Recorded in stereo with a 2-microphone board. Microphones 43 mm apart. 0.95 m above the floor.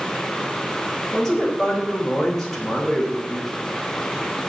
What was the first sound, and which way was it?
A man speaking, 10° left (ahead or behind).